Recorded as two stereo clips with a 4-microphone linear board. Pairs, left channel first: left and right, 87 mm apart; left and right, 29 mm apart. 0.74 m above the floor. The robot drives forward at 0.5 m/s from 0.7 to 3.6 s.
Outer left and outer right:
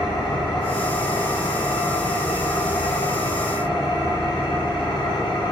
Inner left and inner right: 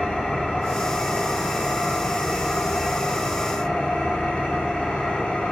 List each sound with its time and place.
0.0 s an engine running: 65° left (ahead or behind), 3 m; by 5.5 s 75° left (ahead or behind), 2.5 m